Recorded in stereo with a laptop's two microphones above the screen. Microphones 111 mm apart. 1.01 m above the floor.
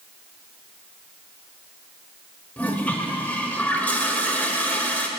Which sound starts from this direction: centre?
A toilet flushing, at 2.6 s.